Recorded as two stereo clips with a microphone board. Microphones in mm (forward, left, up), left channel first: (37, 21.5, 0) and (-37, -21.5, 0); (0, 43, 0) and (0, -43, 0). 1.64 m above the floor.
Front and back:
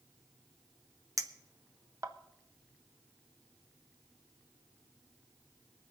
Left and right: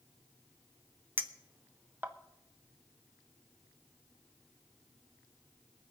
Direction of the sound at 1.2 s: 140° right.